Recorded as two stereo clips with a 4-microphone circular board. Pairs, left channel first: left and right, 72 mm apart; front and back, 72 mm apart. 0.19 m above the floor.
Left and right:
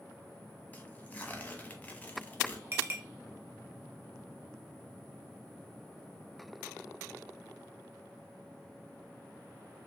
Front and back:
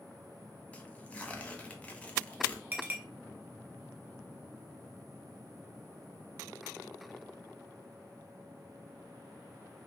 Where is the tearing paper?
55° left, 0.6 m.